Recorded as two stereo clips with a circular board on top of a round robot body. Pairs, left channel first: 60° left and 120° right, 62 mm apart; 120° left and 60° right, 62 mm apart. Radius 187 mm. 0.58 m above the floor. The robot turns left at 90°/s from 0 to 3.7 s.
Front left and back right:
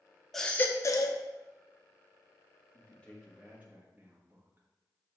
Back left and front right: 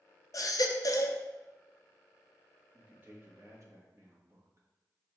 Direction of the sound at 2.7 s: 20° left.